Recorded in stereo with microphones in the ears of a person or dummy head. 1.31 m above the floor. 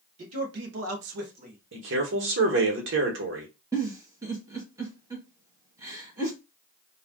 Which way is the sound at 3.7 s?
20° right (ahead or behind).